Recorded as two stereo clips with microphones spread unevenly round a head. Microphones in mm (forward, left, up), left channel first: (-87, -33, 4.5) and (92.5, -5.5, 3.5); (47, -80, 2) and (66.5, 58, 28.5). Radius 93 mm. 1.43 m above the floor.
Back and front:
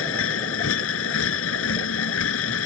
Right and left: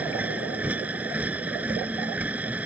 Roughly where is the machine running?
Behind.